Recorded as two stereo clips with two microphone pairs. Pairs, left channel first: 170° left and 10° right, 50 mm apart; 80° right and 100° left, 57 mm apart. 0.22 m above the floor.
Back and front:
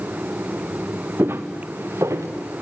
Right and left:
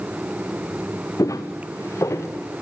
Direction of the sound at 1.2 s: 55° right.